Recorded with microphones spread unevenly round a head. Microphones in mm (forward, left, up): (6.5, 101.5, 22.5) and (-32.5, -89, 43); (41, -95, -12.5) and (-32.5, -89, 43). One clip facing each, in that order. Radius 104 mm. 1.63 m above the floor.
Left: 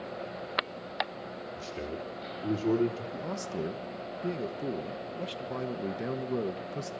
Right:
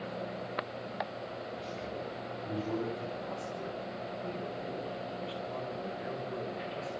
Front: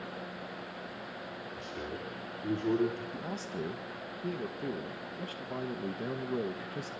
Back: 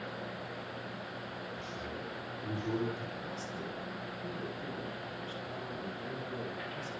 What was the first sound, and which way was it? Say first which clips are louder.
A man speaking: left 4 dB, front 1 dB; 45° left.